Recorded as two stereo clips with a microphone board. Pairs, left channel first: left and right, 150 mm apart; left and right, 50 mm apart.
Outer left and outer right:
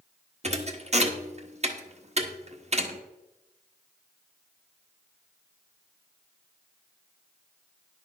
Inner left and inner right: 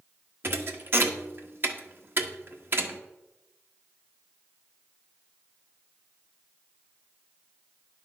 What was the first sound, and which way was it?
A thud, 45° right (ahead or behind).